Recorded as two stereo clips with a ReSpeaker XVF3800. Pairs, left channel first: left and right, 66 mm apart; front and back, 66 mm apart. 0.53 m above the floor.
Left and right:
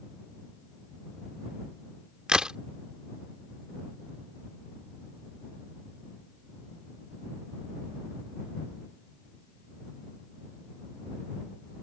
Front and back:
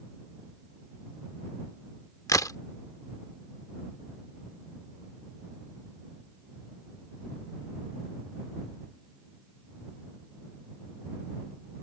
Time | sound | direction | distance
2.3 | a crack | 15° right | ?